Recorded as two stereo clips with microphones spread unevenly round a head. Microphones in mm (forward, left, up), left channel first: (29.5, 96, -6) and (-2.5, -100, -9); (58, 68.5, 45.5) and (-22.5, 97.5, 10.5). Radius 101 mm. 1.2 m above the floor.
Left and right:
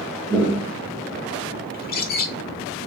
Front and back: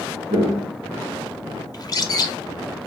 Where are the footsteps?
155° left, 1.6 m.